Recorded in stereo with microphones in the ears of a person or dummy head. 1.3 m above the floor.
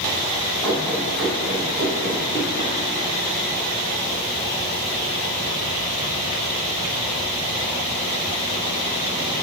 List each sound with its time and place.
0.6 s running footsteps: 10° left (ahead or behind), 2.5 m; by 2.7 s 20° right (ahead or behind), 1.8 m